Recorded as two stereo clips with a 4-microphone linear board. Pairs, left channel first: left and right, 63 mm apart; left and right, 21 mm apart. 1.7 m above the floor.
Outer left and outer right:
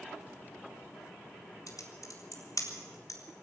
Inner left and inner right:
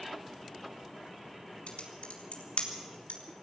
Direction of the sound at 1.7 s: 70° left (ahead or behind).